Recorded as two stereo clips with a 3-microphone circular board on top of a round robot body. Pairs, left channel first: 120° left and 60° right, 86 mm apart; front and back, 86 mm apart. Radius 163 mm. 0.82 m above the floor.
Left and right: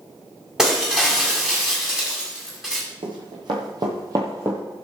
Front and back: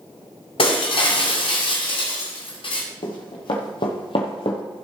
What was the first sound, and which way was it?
Breaking glass, 25° left.